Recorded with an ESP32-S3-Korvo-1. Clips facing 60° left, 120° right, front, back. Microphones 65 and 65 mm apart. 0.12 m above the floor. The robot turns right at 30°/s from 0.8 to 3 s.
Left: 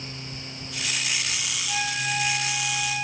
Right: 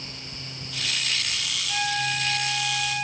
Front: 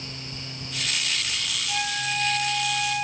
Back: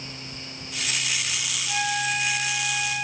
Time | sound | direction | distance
1.7 | a flute | 150° left | 2.5 m